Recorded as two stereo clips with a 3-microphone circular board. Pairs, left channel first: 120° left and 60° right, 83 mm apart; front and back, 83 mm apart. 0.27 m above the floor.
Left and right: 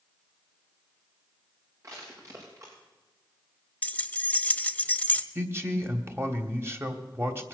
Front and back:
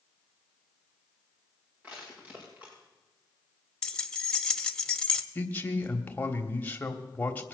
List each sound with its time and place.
1.8 s crushing: 115° right, 5.5 m
3.8 s keys jangling: 70° left, 0.7 m
5.3 s a man speaking: 50° right, 1.2 m